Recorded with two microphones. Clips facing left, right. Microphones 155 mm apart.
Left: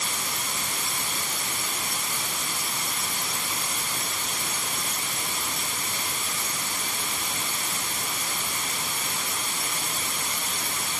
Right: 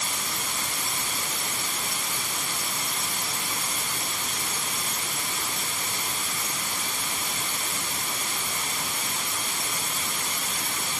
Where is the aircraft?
No aircraft in this recording.